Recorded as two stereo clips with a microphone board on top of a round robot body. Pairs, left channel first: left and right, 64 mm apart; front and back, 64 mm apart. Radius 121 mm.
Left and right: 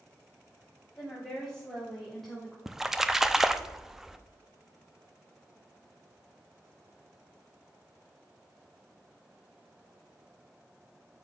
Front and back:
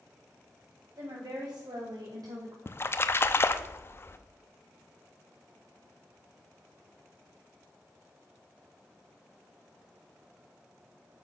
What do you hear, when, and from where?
1.0 s a woman speaking: 175° left, 4 m; by 2.6 s straight behind, 2.5 m
2.7 s a splash: 10° right, 0.8 m